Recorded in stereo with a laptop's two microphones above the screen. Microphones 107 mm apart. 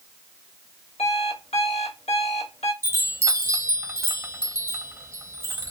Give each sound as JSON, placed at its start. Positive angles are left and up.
{"t": 1.0, "sound": "an alarm clock", "side_deg": 85, "distance_m": 1.4}
{"t": 2.8, "sound": "a chime", "side_deg": -25, "distance_m": 0.7}